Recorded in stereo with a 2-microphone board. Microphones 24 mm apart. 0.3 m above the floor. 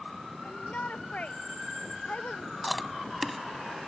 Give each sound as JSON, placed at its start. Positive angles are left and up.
{"t": 0.4, "sound": "a shout", "side_deg": 80}
{"t": 2.6, "sound": "chewing", "side_deg": 0}